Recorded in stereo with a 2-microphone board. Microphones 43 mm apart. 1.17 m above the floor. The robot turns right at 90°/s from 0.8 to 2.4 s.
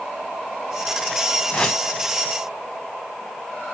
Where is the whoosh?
150° left, 1.1 m; by 1.8 s straight behind, 1.1 m.